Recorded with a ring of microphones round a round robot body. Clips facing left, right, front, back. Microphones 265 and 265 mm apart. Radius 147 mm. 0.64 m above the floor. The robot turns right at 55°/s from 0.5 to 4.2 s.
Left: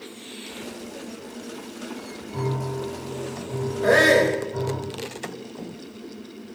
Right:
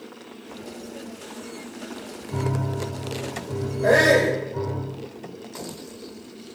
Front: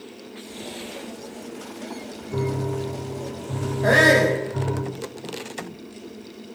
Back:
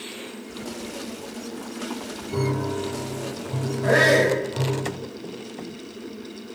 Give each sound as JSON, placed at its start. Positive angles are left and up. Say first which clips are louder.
{"t": 2.3, "sound": "a piano", "louder": "even, even", "azimuth_deg": -90, "distance_m": 7.5}
{"t": 3.8, "sound": "a shout", "louder": "even, front 1 dB", "azimuth_deg": 20, "distance_m": 4.0}